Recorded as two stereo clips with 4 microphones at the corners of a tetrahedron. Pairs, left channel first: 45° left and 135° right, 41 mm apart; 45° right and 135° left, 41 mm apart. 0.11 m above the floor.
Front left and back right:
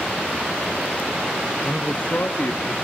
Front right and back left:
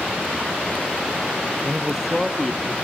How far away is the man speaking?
About 1.3 m.